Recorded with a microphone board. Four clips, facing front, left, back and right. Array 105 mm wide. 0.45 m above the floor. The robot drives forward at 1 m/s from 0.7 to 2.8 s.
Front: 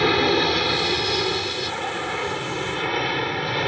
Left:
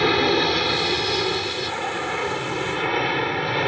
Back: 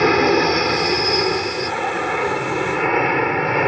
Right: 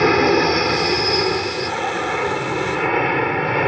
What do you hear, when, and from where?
0.0 s an aircraft: 135° right; by 3.7 s 145° right